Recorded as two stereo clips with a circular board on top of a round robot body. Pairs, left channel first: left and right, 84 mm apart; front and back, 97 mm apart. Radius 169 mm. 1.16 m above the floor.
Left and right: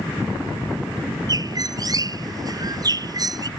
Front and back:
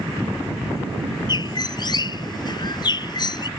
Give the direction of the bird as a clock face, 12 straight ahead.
2 o'clock.